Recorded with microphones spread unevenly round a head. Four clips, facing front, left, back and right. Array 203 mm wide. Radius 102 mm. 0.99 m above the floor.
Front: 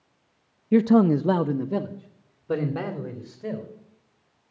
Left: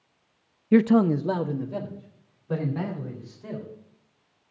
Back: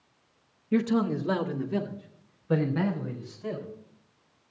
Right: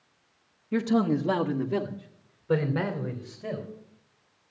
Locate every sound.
0.7 s a man speaking: 70° left, 0.6 m; by 3.7 s 25° right, 3.5 m